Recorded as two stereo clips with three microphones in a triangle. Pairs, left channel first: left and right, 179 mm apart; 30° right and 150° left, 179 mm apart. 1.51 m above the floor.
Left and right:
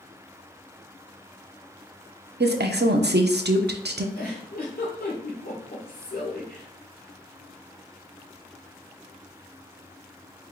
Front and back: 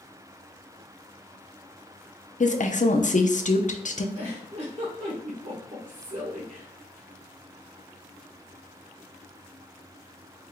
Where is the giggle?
110° left, 2 m.